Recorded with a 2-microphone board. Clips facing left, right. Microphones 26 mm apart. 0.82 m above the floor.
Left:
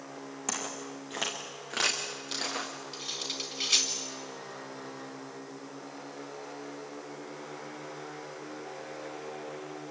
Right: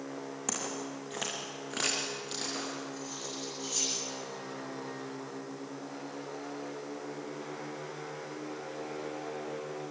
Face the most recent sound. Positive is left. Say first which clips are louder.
# left 4 dB
turn(degrees=75)  # may be behind; listen again after turning